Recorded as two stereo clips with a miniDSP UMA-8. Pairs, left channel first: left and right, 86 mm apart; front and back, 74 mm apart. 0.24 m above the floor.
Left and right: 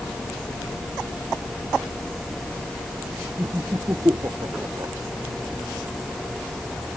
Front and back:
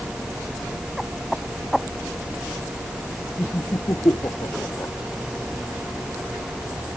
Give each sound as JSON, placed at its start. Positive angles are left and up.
{"t": 3.4, "sound": "laughter", "azimuth_deg": -35}